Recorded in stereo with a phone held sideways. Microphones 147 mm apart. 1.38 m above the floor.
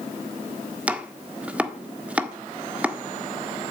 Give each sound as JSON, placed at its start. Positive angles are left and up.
{"t": 0.9, "sound": "chopping", "side_deg": -10, "distance_m": 1.4}